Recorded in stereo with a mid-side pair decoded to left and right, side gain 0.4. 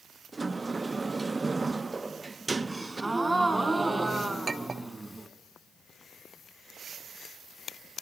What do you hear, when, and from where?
0.3 s a sliding door: 30° right, 0.7 m
2.7 s a gasp: 20° right, 2.5 m
4.5 s a clink: 35° right, 1.6 m